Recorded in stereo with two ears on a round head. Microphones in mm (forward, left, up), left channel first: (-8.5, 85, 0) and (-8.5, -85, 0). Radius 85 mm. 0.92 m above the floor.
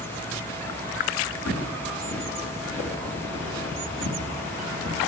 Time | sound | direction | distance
1.4 | footsteps | 75° left (ahead or behind) | 3.5 m